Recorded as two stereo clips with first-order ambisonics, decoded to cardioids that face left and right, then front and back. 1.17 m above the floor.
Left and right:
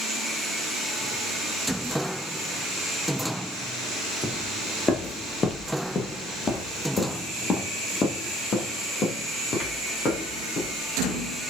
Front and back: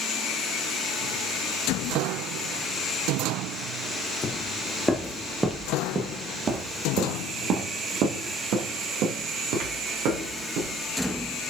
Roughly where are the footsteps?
Ahead.